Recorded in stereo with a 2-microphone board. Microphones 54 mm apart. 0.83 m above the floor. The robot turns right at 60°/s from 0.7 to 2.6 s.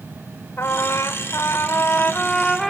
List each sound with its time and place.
0.6 s a trumpet: 65° left, 1.0 m; by 2.7 s 175° left, 1.0 m